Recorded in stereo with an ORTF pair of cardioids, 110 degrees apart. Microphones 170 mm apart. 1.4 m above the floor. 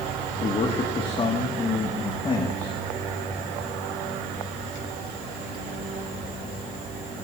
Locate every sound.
0.4 s a man speaking: 30° left, 2.5 m